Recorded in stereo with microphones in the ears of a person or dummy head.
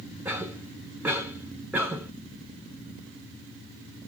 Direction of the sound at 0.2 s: 5° right (ahead or behind).